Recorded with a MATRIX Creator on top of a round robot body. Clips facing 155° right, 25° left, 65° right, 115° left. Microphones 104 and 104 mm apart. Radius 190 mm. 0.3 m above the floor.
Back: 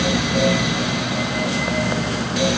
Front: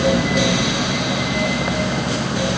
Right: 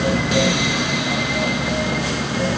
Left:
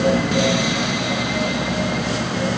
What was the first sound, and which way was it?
Only background noise.